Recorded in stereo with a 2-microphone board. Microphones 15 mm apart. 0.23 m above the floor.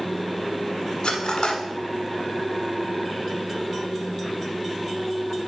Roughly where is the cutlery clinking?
Left.